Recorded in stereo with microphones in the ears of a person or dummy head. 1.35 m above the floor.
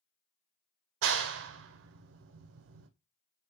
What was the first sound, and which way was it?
A clap, 65° right (ahead or behind).